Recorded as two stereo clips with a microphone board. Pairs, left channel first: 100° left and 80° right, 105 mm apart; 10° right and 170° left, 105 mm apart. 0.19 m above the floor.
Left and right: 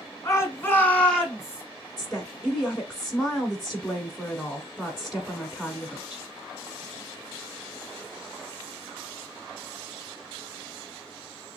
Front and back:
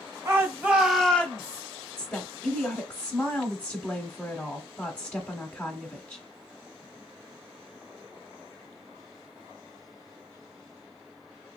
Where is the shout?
130° left, 1.3 m; by 1.6 s 5° right, 1.2 m.